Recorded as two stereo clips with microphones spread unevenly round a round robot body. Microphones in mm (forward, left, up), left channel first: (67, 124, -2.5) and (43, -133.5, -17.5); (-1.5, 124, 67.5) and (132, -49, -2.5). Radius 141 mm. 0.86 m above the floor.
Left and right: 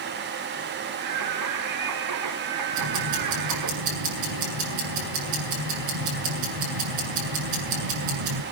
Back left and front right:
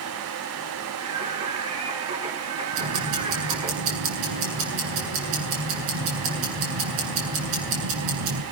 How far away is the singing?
About 2.0 m.